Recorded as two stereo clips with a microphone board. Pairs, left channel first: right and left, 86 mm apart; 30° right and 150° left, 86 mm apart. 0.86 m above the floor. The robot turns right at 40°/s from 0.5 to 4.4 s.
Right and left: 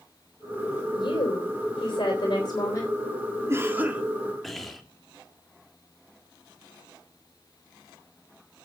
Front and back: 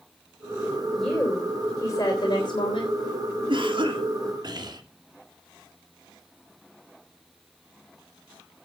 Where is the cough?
145° left, 2 m; by 4.8 s straight behind, 2 m.